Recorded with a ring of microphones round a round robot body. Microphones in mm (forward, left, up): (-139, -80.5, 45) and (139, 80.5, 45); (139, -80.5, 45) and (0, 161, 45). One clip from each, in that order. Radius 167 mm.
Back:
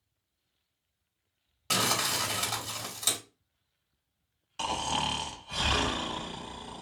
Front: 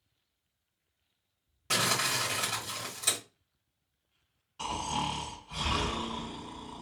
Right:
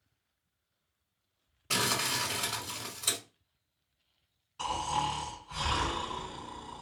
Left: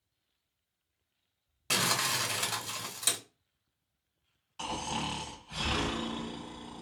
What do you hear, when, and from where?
1.7 s crumpling: 140° left, 1.5 m
4.6 s snoring: straight behind, 1.1 m